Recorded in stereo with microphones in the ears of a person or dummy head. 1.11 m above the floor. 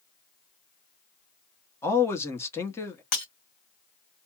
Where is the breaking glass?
45° left (ahead or behind), 1.7 m.